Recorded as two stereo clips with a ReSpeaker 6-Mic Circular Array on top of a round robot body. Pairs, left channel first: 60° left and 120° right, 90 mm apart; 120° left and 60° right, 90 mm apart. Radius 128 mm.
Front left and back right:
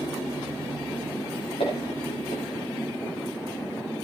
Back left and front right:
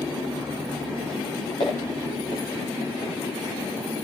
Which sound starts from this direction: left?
Footsteps, at 1.6 s.